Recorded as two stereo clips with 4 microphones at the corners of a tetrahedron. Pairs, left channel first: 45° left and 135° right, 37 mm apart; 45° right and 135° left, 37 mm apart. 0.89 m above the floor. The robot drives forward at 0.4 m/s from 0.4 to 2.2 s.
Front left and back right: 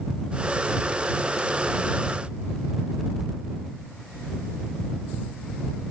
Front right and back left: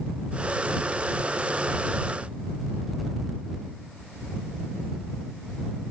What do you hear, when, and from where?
Only background noise.